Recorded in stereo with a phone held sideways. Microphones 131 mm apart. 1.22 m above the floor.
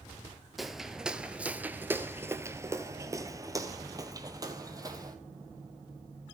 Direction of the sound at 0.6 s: Centre (ahead or behind).